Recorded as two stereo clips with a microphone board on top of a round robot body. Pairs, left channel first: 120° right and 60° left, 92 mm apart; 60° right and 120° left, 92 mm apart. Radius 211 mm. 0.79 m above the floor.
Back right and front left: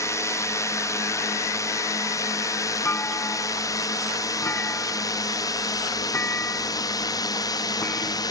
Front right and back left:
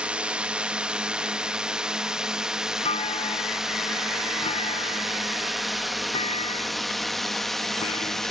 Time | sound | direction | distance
0.0 | a drone | 165° right | ?
2.9 | a clunk | 50° right | ?